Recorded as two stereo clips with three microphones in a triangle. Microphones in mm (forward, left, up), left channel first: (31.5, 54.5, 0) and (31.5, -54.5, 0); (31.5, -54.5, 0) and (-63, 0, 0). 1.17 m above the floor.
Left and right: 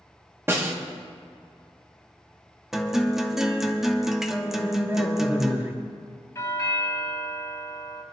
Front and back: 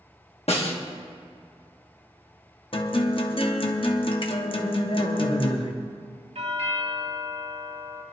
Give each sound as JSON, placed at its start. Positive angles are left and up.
{"t": 0.5, "sound": "a snare drum", "azimuth_deg": -25, "distance_m": 1.5}
{"t": 2.7, "sound": "a guitar", "azimuth_deg": -5, "distance_m": 1.0}
{"t": 4.5, "sound": "a man speaking", "azimuth_deg": -20, "distance_m": 3.0}
{"t": 6.3, "sound": "a doorbell", "azimuth_deg": 150, "distance_m": 1.7}